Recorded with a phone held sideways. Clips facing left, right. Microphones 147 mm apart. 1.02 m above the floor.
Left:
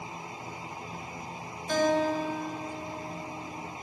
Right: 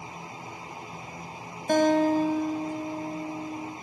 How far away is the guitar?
About 1.1 m.